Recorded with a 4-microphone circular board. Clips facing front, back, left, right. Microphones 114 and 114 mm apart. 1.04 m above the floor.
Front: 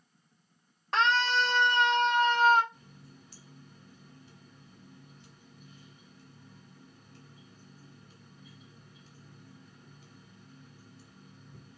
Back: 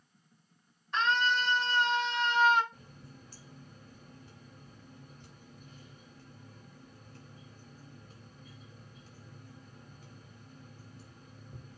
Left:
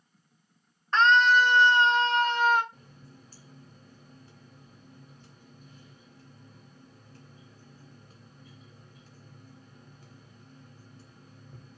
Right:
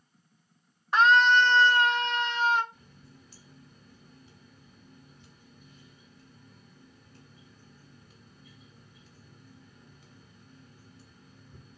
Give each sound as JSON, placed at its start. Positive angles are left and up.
{"t": 0.9, "sound": "a scream", "azimuth_deg": -10, "distance_m": 1.6}
{"t": 2.7, "sound": "a running tap", "azimuth_deg": 135, "distance_m": 3.0}